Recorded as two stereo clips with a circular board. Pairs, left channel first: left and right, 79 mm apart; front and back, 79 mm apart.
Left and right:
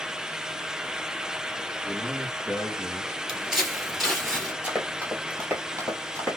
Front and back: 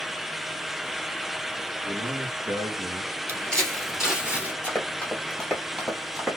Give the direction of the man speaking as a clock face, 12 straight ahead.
6 o'clock.